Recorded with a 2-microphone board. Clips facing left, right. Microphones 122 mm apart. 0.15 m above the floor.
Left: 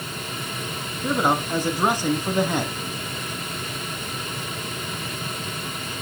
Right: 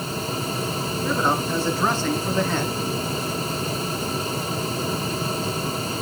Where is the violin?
I don't hear a violin.